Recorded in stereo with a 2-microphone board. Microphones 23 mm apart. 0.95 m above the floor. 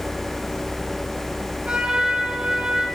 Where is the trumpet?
50° right (ahead or behind), 7.5 m.